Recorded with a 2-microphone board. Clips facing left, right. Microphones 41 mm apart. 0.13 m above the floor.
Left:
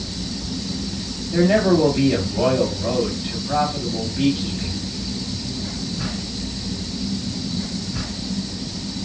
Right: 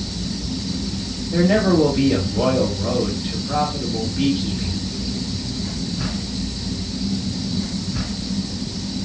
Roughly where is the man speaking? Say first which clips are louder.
Even; centre.